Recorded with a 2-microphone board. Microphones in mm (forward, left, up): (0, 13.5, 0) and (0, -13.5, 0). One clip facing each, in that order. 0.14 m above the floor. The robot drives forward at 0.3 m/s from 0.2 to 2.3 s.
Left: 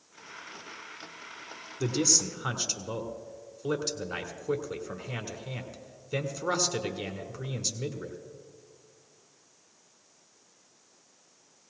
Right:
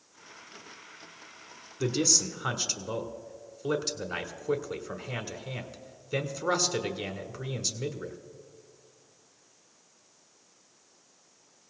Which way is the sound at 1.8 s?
5° right (ahead or behind).